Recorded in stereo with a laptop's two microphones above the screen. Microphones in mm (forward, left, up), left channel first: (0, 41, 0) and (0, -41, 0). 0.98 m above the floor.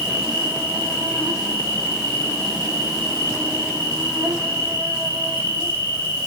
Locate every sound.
0.0 s an insect: 30° right (ahead or behind), 6 m